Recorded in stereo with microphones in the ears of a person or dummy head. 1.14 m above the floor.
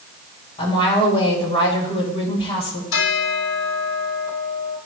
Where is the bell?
85° left, 4.5 m.